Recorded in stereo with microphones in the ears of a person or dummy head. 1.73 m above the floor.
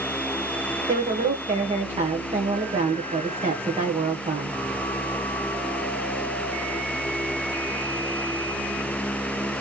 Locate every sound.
0.9 s a woman speaking: 25° right (ahead or behind), 1.3 m